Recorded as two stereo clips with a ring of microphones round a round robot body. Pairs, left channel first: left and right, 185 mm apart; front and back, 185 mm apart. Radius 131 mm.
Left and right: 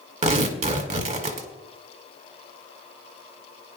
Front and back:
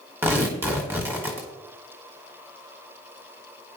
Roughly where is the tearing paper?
Right.